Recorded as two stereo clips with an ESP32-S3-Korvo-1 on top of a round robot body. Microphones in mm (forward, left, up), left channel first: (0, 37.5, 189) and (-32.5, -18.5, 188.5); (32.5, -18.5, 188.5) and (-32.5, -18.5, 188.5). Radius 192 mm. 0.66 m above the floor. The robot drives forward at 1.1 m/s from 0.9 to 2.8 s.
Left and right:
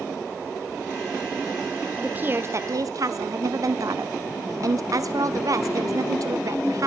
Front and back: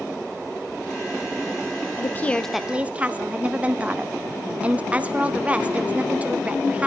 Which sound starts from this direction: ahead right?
A woman speaking, at 2.0 s.